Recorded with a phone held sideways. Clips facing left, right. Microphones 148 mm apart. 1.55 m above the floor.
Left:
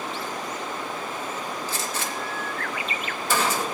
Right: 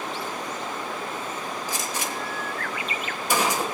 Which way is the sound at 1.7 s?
15° right (ahead or behind).